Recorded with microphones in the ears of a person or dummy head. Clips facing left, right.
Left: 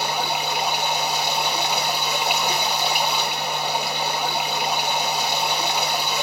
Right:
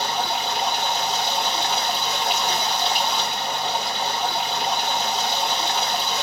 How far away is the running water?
About 1.0 m.